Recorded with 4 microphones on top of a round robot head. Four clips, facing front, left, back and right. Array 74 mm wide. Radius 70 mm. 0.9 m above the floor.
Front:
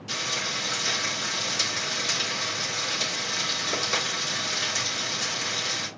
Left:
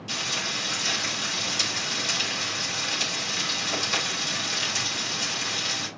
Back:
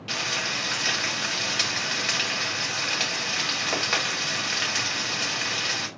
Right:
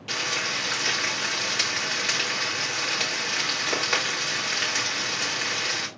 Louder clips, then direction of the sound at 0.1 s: Right 3 dB, back 2 dB; 140° right.